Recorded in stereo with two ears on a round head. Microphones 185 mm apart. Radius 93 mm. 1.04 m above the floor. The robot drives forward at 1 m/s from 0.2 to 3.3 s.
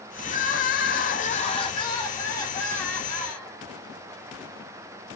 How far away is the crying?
About 0.9 m.